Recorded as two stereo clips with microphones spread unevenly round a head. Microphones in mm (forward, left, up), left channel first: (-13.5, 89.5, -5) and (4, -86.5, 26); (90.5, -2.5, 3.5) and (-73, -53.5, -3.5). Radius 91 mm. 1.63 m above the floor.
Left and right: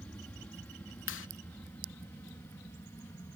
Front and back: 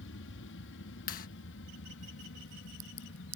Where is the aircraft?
15° left; by 3.4 s 20° left.